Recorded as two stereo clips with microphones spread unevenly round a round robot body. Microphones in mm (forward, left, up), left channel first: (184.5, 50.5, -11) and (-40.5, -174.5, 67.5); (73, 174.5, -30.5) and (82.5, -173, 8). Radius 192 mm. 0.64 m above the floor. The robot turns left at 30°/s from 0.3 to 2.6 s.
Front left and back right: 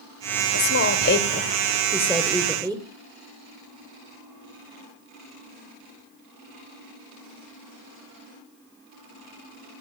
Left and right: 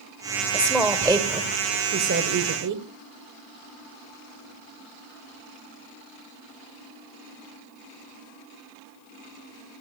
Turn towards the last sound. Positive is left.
turn(degrees=-50)